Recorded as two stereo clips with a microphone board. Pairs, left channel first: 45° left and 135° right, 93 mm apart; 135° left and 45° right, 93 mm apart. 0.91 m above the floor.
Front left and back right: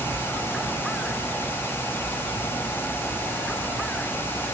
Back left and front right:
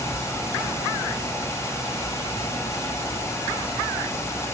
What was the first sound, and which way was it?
Only background noise.